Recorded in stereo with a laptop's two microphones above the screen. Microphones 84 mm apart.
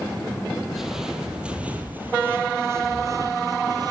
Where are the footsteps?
5° right (ahead or behind), 2.0 m; by 3.9 s 50° right (ahead or behind), 1.6 m.